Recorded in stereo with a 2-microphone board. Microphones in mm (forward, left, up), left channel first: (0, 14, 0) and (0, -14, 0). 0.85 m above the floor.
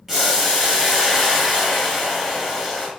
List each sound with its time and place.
0.1 s boiling: 10° right (ahead or behind), 1.2 m